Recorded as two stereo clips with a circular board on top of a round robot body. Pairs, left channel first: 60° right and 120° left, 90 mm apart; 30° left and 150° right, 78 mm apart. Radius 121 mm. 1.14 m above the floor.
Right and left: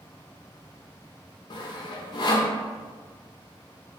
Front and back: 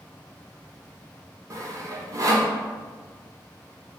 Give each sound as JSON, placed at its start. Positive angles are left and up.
{"t": 1.5, "sound": "sawing", "azimuth_deg": -105, "distance_m": 0.7}